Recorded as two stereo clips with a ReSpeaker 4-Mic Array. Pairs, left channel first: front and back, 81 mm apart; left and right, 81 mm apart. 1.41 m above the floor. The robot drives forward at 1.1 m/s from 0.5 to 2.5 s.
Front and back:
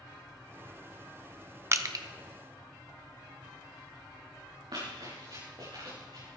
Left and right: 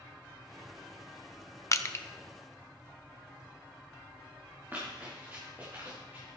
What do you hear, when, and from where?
1.7 s crushing: 135° left, 0.7 m; by 2.0 s 150° left, 1.0 m
4.7 s running footsteps: 155° right, 7.5 m